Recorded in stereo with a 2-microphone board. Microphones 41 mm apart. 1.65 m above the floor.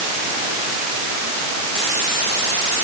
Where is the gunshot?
I don't hear a gunshot.